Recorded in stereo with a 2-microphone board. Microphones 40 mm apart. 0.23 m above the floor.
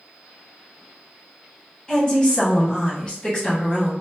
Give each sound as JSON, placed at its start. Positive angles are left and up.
{"t": 1.9, "sound": "a woman speaking", "side_deg": 20, "distance_m": 1.6}